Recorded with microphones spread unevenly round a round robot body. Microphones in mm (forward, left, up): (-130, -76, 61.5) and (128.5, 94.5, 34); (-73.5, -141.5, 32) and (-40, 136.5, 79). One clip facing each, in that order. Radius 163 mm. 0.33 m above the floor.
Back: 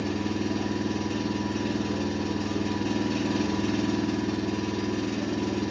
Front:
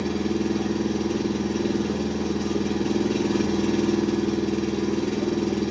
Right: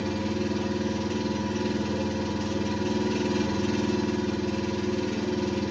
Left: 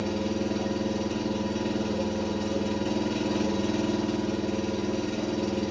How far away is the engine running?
About 1.0 m.